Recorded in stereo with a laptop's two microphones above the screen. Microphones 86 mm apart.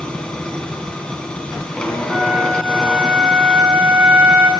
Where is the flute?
15° right (ahead or behind), 1.9 m.